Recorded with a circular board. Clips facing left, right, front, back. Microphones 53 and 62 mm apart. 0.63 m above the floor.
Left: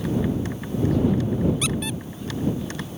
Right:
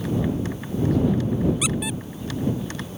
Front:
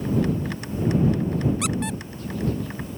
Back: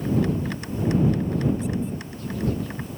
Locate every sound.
1.6 s a squeak: 10° right